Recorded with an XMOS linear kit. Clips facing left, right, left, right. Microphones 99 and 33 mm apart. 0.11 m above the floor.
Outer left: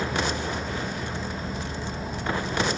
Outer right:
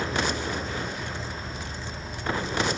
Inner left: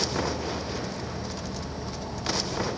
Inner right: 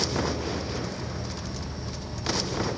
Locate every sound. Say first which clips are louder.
0.0 s an insect: outer left 1 dB, even; 55° left (ahead or behind), 3 m